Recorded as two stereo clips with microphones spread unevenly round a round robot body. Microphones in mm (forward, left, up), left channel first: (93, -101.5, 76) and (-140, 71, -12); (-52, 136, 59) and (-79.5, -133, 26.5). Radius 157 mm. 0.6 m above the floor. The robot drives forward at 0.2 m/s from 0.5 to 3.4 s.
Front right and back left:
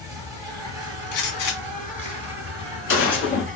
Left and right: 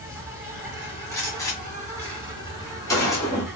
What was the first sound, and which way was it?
An insect, 165° right.